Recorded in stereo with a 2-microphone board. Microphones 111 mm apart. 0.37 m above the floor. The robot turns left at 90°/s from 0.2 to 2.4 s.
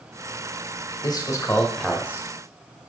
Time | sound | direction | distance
1.0 | a man speaking | 75° left | 1.3 m